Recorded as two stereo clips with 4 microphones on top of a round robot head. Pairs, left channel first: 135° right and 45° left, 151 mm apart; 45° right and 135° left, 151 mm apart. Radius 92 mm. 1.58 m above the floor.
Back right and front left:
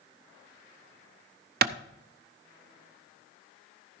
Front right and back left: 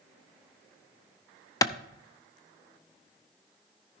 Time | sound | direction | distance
1.6 | a clap | 20° left | 0.7 m